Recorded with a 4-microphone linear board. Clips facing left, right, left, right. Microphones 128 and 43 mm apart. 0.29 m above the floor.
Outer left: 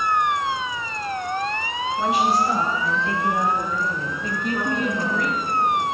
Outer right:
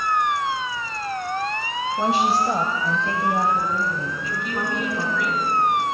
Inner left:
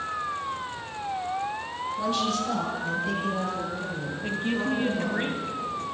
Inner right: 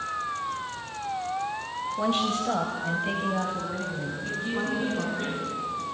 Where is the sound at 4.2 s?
45° left (ahead or behind), 2.5 m.